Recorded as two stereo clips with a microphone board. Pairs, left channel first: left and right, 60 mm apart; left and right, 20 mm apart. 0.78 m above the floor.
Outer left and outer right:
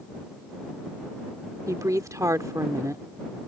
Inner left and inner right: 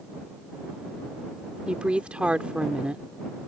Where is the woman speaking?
75° right (ahead or behind).